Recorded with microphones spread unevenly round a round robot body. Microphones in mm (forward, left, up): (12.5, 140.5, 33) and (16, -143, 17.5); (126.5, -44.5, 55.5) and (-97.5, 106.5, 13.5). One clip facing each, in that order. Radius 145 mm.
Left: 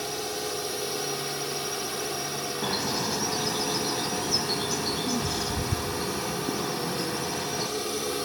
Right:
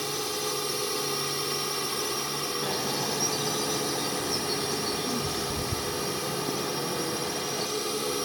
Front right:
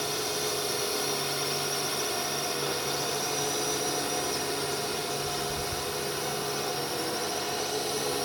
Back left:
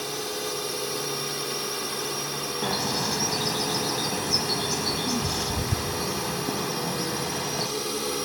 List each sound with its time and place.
0.0 s a drone: 140° right; by 8.3 s 170° right
2.6 s a bird: 165° left